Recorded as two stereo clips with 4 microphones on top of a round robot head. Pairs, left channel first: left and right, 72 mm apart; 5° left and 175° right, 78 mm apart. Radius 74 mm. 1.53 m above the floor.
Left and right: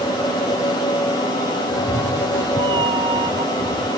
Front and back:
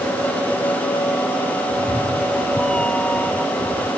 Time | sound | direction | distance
1.7 | a cat meowing | 80° right | ?